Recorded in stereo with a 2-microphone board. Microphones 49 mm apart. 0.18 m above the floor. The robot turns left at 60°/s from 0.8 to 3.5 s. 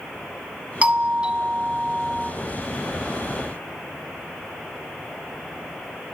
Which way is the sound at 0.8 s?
25° right (ahead or behind).